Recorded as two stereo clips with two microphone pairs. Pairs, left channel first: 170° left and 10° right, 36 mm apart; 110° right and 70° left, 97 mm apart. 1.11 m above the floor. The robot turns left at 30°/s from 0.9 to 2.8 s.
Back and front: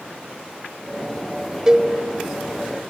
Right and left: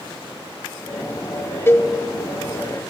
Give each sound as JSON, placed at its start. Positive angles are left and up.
{"t": 1.7, "sound": "a cowbell", "azimuth_deg": -65, "distance_m": 1.0}